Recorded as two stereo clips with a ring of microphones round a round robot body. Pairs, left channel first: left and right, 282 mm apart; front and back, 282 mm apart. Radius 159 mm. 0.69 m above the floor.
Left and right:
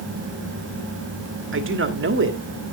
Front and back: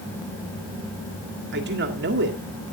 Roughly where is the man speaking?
Behind right.